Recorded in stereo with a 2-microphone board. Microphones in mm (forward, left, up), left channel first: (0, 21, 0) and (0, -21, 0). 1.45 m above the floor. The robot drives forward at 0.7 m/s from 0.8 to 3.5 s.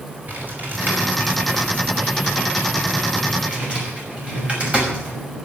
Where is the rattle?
No rattle in this recording.